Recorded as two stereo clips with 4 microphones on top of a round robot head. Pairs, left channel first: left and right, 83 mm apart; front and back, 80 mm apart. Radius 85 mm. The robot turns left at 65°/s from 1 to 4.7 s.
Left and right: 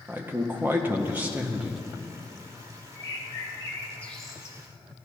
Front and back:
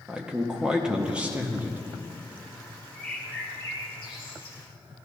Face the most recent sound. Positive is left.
turn(degrees=-25)